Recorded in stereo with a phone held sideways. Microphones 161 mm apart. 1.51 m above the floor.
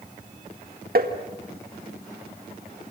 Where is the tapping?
65° right (ahead or behind), 2.0 m.